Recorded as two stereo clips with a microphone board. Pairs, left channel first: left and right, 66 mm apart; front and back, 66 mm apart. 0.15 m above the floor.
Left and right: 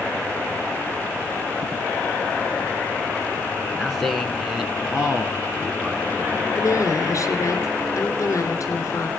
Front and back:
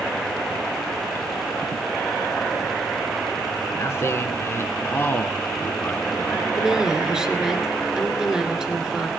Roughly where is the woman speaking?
Left.